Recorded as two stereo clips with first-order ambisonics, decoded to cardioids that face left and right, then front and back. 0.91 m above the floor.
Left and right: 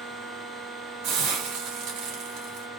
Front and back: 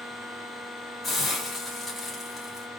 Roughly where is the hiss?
Right.